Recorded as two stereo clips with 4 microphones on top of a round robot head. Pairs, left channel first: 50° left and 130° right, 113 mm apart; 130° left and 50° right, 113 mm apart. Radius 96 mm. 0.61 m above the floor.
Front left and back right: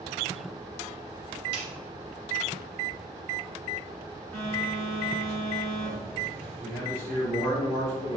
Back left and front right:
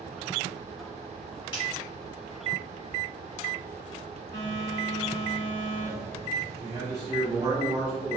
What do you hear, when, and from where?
1.5 s a snare drum: straight behind, 1.0 m
4.3 s a phone buzzing: 125° left, 1.7 m
6.6 s a man speaking: 5° right, 1.4 m